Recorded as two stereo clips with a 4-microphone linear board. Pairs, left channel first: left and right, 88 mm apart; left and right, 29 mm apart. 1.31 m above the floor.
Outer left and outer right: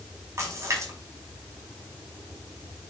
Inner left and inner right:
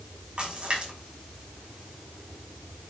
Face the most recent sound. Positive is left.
turn(degrees=-35)  # may be behind; listen again after turning